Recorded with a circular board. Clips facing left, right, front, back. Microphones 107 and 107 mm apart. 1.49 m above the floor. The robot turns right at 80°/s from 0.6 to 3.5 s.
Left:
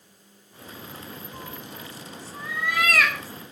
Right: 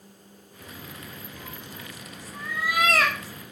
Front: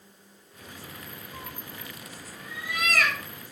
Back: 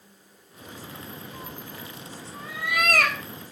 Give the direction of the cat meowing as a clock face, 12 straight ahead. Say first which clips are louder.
Left 2 dB, back 2 dB; 9 o'clock.